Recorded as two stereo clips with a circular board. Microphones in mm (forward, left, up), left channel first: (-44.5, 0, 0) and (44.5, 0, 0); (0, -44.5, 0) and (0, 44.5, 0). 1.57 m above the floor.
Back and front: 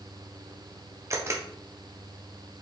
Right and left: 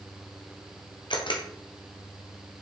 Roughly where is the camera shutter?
Ahead right.